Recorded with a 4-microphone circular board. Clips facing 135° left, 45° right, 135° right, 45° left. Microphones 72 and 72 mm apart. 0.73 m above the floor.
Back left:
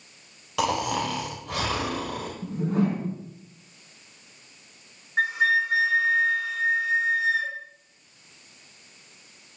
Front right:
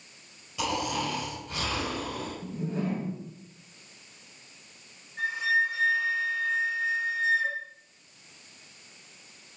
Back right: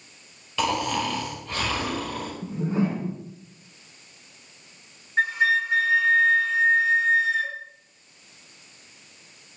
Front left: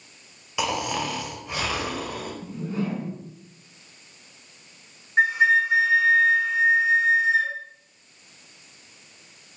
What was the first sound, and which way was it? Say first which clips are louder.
Snoring: back left 5 dB, back right 2 dB; 120° left.